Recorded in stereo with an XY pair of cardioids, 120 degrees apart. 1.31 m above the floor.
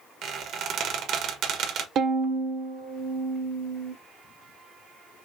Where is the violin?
60° right, 0.7 m.